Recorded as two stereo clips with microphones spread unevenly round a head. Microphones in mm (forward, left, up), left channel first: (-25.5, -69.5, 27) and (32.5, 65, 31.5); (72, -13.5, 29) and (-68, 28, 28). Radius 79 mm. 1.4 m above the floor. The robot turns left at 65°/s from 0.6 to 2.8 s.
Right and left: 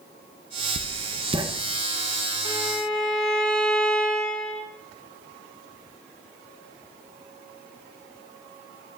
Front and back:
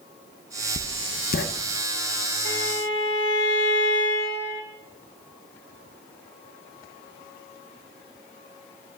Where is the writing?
45° left, 0.6 m; by 1.4 s straight ahead, 0.6 m.